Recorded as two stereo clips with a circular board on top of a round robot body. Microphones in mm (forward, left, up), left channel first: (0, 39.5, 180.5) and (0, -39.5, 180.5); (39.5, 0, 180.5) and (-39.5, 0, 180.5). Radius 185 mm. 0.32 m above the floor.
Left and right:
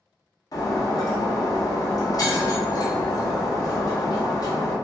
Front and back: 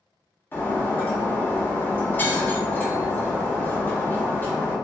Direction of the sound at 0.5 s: 60° left.